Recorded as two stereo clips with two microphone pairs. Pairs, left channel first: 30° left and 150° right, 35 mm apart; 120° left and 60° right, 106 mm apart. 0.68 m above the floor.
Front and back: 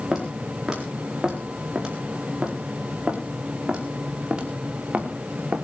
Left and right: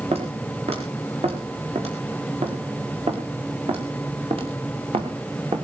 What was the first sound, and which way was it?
Footsteps, 75° right.